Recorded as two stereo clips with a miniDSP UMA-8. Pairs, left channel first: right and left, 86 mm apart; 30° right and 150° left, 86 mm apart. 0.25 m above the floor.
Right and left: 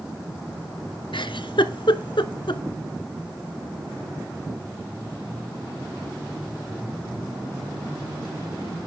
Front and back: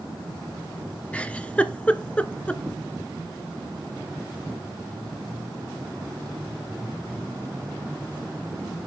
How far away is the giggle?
About 0.9 m.